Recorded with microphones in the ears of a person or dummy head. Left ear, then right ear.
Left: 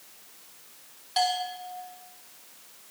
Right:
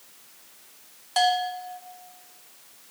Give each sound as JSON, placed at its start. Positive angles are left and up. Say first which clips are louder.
{"t": 1.2, "sound": "a bell", "louder": "right 4 dB", "side_deg": -30, "distance_m": 1.1}